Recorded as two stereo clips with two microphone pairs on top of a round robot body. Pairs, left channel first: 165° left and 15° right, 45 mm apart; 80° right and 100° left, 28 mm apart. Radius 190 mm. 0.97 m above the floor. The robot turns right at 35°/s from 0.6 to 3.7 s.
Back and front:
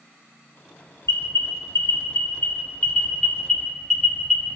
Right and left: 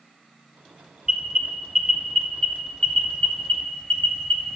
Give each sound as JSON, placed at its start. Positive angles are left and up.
{"t": 1.1, "sound": "an alarm", "azimuth_deg": 160, "distance_m": 3.0}